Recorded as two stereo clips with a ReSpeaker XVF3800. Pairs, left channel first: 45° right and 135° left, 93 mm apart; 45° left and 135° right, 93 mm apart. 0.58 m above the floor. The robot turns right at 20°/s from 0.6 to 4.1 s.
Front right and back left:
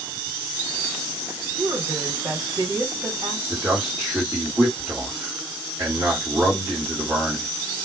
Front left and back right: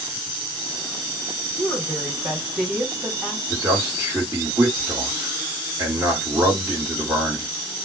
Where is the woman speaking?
120° left, 1.8 m; by 3.4 s 160° left, 1.8 m.